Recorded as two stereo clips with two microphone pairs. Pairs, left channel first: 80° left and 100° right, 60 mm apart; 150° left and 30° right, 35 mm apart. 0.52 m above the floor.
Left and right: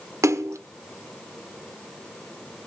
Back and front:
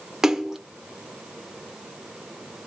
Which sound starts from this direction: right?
A splash, at 0.2 s.